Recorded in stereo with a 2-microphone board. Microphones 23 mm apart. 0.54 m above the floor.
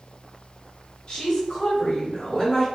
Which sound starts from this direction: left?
A woman speaking, at 1.1 s.